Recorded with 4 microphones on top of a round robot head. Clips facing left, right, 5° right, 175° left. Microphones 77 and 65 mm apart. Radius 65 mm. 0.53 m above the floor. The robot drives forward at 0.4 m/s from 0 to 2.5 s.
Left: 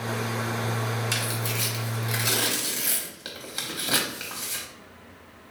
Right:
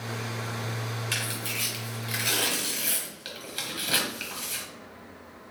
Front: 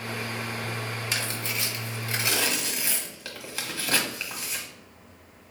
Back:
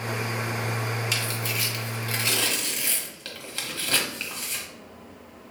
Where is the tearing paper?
30° left, 1.4 m; by 4.6 s 65° left, 1.1 m.